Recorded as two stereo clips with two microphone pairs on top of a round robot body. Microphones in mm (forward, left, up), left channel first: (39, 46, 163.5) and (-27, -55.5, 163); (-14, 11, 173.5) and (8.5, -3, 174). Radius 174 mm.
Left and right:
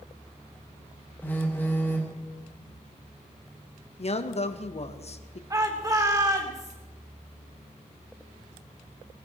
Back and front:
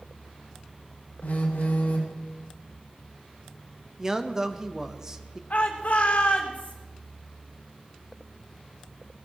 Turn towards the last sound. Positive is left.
turn(degrees=175)